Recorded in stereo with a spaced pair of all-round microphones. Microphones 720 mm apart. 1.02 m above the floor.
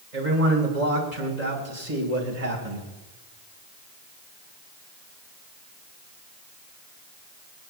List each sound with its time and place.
0.1 s a man speaking: 70° right (ahead or behind), 4 m